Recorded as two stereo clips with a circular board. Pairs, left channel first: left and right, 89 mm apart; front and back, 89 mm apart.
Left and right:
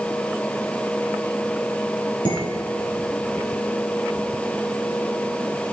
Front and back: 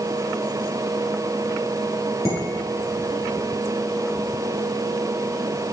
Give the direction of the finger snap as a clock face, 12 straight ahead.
No finger snap in this recording.